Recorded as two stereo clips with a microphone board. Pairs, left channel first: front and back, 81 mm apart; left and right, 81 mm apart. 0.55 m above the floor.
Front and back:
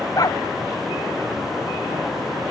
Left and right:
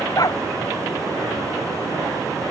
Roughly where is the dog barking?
Ahead left.